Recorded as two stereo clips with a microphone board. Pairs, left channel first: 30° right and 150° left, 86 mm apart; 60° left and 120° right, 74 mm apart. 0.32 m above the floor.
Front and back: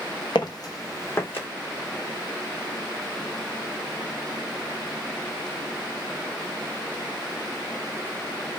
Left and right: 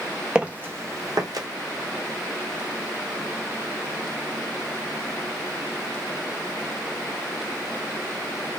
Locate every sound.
0.3 s footsteps: 40° right, 0.7 m; by 1.5 s 95° right, 1.1 m